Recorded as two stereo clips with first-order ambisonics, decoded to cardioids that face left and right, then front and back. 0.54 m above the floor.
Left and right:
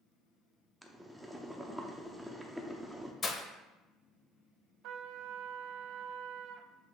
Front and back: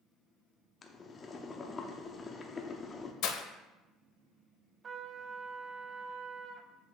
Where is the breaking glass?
25° left, 0.7 m.